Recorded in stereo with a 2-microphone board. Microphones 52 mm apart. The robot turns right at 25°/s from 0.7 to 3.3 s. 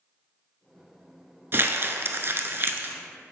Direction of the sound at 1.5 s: 45° right (ahead or behind).